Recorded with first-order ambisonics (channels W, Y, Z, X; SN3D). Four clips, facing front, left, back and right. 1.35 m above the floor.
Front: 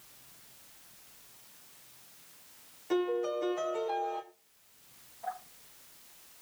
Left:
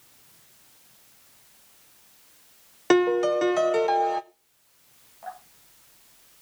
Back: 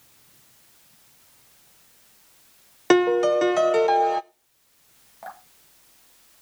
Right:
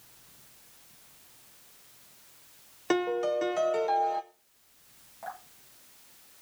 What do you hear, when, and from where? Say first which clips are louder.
2.9 s a piano: left 7 dB, back 13 dB; 155° left, 0.5 m
5.2 s dripping: left 2 dB, even; 170° right, 3 m